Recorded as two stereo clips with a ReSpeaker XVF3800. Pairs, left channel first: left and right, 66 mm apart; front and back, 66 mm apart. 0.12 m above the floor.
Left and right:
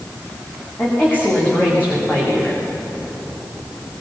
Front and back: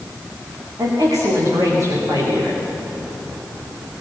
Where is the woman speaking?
150° left, 10 m.